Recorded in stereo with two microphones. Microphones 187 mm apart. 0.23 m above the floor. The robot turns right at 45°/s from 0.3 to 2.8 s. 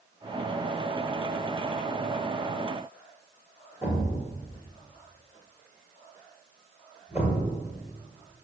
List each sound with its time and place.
3.8 s a thud: 15° right (ahead or behind), 1.8 m